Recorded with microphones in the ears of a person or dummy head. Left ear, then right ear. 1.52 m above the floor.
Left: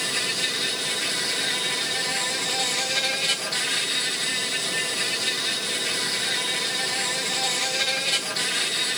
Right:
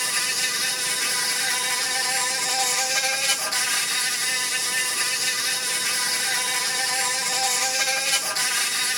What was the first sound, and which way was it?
An insect, 45° right (ahead or behind).